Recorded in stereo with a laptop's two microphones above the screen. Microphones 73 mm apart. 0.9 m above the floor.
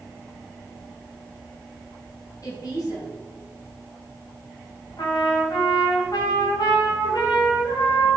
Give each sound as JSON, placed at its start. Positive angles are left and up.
{"t": 2.4, "sound": "a woman speaking", "side_deg": 50, "distance_m": 5.0}
{"t": 5.0, "sound": "a trumpet", "side_deg": 65, "distance_m": 4.5}